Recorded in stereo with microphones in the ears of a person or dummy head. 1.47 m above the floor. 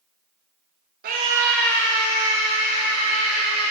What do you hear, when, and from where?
1.0 s a scream: 50° right (ahead or behind), 0.7 m; by 3.7 s 45° left (ahead or behind), 3.5 m